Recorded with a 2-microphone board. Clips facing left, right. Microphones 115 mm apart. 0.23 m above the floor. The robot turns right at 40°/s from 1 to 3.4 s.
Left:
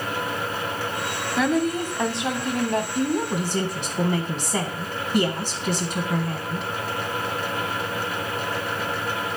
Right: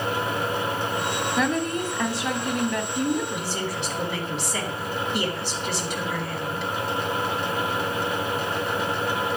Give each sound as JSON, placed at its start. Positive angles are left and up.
{"t": 1.4, "sound": "a woman speaking", "azimuth_deg": 5, "distance_m": 1.3}
{"t": 3.0, "sound": "a woman speaking", "side_deg": 50, "distance_m": 1.4}